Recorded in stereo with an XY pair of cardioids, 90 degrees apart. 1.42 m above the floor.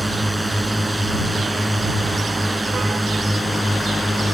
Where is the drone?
Straight ahead; by 4.3 s 5° left.